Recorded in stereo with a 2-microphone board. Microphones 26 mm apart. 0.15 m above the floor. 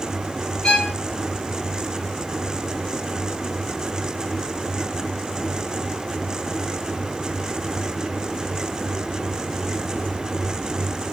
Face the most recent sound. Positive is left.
turn(degrees=30)  # may be behind; listen again after turning